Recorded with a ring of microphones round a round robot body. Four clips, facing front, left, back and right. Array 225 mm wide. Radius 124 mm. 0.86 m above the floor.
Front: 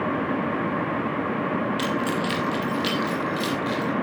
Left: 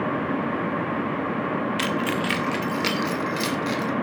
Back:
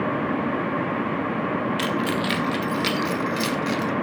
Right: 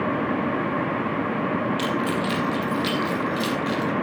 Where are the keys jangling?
115° left, 1.3 m; by 3.9 s 135° left, 3 m.